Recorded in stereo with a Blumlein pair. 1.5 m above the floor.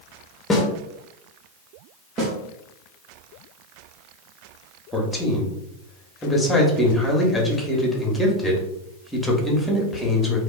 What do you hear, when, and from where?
0.5 s a snare drum: 15° left, 0.7 m
2.2 s a snare drum: 30° right, 0.8 m
4.9 s a man speaking: 5° left, 0.8 m